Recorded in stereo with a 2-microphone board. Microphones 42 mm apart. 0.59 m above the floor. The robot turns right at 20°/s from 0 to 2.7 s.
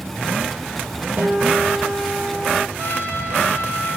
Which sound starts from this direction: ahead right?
A guitar, at 1.2 s.